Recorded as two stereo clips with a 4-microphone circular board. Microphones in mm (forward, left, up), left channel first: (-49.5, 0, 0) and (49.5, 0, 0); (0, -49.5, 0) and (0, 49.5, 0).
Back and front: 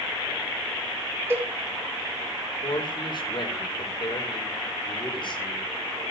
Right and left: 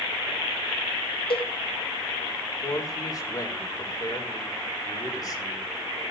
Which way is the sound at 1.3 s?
65° right.